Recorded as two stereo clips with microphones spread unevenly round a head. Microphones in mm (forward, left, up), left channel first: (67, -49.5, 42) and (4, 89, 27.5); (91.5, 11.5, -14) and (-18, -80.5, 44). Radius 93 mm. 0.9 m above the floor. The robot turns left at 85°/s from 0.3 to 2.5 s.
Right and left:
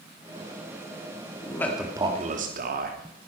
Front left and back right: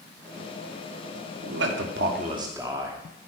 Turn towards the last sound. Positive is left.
turn(degrees=140)